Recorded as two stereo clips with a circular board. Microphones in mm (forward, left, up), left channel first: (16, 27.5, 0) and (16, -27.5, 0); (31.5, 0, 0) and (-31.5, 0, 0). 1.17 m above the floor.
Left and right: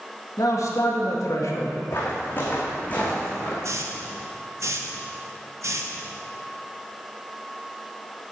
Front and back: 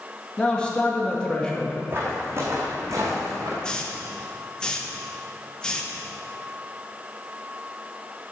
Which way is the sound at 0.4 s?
75° left.